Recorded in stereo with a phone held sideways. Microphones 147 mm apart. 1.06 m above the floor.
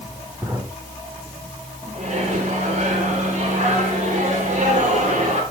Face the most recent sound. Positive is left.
turn(degrees=-55)  # may be behind; listen again after turning